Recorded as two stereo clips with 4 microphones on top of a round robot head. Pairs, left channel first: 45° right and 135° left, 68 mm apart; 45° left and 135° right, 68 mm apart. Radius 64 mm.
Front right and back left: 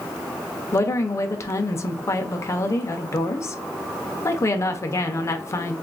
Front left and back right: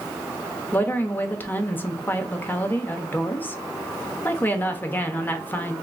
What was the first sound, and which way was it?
A woman speaking, 10° right.